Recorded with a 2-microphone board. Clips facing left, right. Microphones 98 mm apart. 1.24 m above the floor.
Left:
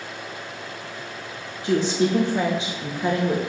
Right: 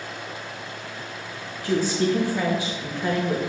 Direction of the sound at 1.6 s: 20° left (ahead or behind).